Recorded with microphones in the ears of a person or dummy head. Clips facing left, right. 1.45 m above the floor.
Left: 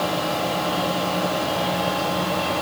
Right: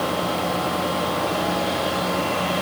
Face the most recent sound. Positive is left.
No sound to turn to.